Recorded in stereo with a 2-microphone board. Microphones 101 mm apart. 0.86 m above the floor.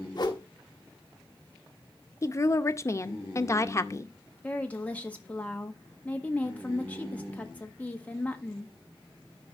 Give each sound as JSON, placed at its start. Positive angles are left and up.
{"t": 0.1, "sound": "a whoosh", "side_deg": 45, "distance_m": 1.3}
{"t": 2.2, "sound": "a woman speaking", "side_deg": 30, "distance_m": 0.6}
{"t": 4.4, "sound": "a woman speaking", "side_deg": 15, "distance_m": 1.5}